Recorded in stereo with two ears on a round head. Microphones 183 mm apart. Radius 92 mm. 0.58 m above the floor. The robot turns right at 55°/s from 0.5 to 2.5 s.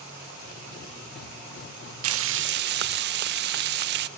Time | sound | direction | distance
2.0 | frying | 80° right | 0.5 m